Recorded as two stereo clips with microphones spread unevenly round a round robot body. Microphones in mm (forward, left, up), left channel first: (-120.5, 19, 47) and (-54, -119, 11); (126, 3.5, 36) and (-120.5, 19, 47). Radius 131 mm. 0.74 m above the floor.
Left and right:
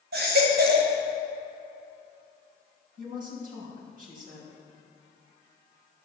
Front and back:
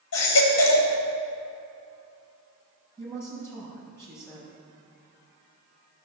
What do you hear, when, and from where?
0.1 s a baby crying: 30° right, 1.9 m
3.0 s a woman speaking: 85° right, 4.5 m